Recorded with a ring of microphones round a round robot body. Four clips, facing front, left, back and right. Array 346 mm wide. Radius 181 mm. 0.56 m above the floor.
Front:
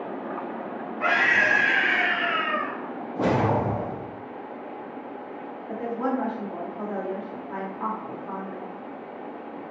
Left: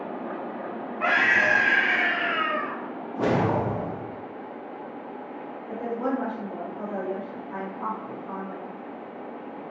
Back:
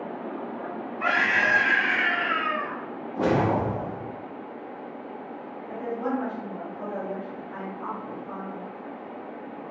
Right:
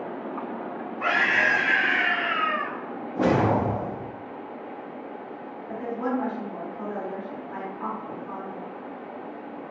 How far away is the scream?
About 1.9 m.